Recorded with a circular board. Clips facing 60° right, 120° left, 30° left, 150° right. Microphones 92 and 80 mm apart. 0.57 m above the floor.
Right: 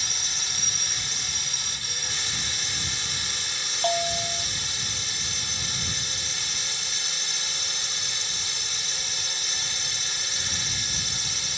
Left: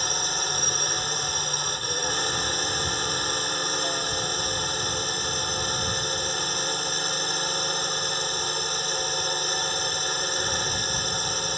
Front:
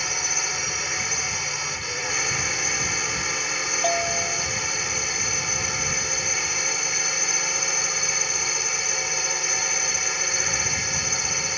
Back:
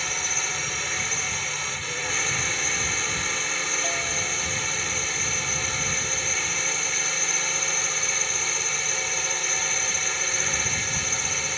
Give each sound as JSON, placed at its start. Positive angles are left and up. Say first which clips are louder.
{"t": 0.0, "sound": "a drone", "louder": "left 9 dB, front 1 dB", "azimuth_deg": 110}
{"t": 3.8, "sound": "a bell", "louder": "right 3 dB, front 5 dB", "azimuth_deg": -20}